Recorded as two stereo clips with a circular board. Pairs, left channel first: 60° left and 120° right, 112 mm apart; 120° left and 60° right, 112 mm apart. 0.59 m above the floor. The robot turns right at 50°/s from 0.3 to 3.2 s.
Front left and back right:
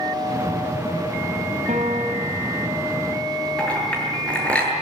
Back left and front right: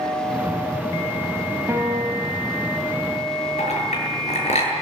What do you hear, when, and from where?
1.7 s a piano: 130° right, 5 m; by 2.5 s 90° right, 5 m
3.6 s a clink: 140° left, 8.5 m